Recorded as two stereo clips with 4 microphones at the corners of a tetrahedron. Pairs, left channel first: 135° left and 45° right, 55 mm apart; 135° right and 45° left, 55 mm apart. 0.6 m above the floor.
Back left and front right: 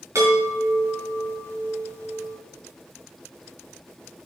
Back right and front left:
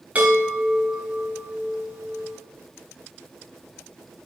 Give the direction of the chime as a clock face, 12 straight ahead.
1 o'clock.